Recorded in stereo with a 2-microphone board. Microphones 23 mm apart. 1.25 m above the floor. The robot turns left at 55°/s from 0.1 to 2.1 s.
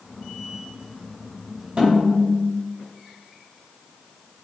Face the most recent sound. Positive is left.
turn(degrees=-45)  # may be behind; listen again after turning